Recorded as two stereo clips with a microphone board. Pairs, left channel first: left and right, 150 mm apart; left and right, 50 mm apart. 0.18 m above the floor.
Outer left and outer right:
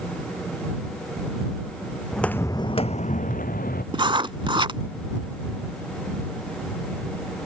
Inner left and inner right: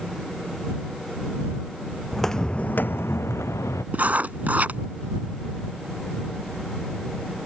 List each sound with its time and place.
2.1 s footsteps: centre (ahead or behind); by 3.8 s 80° left
3.9 s writing: 35° right (ahead or behind)